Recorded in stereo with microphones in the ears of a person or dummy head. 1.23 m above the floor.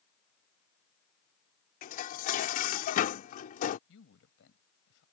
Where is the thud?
I don't hear a thud.